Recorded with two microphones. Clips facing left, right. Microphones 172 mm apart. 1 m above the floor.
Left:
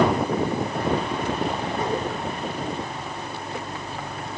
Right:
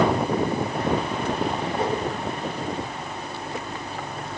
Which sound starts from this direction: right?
A whoosh, at 1.8 s.